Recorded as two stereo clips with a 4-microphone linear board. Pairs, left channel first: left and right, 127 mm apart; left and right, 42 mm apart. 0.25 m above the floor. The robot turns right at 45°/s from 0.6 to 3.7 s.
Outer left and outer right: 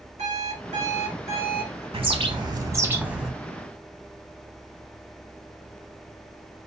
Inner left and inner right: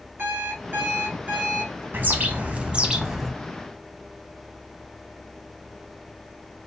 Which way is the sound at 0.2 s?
90° right.